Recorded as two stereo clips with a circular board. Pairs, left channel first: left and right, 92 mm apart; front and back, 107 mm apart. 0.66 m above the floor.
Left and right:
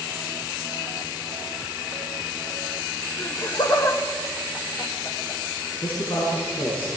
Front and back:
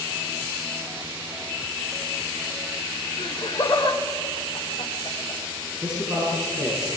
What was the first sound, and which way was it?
Laughter, 55° left.